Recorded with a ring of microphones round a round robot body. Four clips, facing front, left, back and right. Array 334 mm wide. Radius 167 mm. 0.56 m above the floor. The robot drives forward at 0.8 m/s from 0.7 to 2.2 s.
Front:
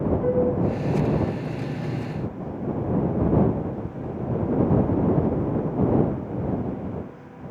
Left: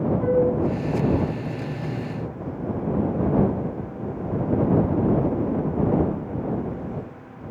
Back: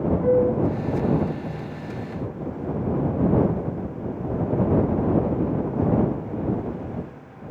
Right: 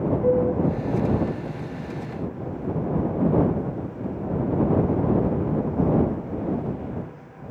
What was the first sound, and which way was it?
A flute, 85° left.